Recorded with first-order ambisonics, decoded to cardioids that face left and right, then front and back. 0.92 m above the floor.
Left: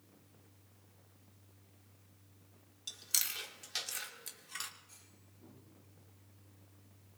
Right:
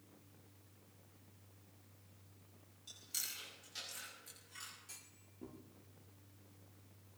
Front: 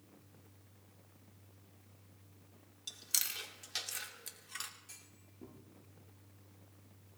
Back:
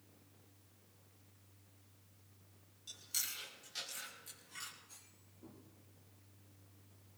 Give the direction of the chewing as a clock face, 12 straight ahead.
10 o'clock.